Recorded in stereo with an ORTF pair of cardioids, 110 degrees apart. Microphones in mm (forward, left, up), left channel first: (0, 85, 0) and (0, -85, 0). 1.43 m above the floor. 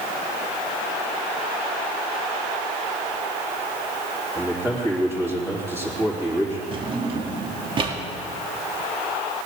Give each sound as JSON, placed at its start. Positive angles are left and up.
{"t": 4.3, "sound": "a man speaking", "azimuth_deg": -15, "distance_m": 3.5}
{"t": 6.7, "sound": "a drawer", "azimuth_deg": -35, "distance_m": 1.7}